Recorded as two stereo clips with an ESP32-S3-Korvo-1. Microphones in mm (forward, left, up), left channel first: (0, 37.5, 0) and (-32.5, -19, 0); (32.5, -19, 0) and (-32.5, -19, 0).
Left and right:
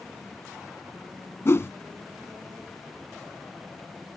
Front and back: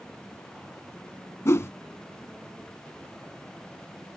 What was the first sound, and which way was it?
A whoosh, 30° left.